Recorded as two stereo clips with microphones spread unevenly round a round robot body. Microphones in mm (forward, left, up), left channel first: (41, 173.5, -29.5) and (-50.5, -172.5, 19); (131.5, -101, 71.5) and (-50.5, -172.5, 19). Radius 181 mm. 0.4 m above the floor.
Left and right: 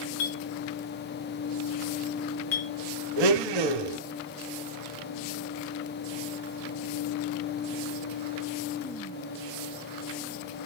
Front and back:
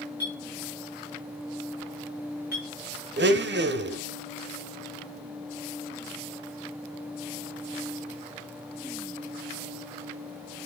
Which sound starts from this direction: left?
A clink, at 0.2 s.